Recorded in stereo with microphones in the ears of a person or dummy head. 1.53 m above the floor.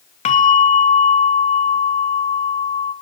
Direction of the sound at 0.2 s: 35° left (ahead or behind).